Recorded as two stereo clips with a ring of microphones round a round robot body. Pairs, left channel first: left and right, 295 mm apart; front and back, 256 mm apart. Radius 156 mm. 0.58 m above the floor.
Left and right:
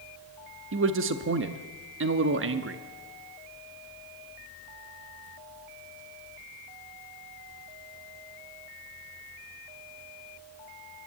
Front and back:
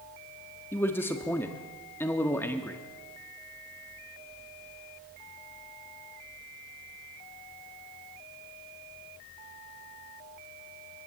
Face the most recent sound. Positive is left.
turn(degrees=-80)